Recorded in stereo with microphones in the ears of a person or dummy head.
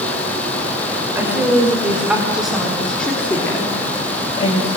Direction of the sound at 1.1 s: 10° right (ahead or behind).